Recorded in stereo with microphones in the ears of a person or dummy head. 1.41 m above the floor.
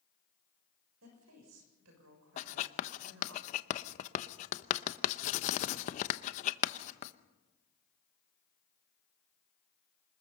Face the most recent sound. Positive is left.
turn(degrees=45)  # may be behind; listen again after turning